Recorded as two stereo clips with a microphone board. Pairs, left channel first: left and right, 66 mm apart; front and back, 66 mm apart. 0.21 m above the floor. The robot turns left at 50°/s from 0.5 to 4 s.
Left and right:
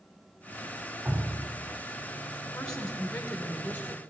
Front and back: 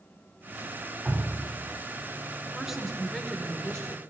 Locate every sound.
1.1 s dripping: 95° right, 1.3 m; by 1.6 s 120° right, 1.3 m
2.5 s a woman speaking: 130° left, 0.9 m; by 4.0 s 55° left, 0.9 m